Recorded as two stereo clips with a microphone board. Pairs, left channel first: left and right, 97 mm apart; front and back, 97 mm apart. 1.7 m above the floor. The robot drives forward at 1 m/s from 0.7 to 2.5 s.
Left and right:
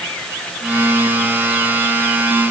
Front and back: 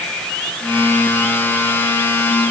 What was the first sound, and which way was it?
Only background noise.